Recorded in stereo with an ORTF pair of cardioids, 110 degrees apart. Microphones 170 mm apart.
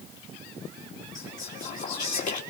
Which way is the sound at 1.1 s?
50° left.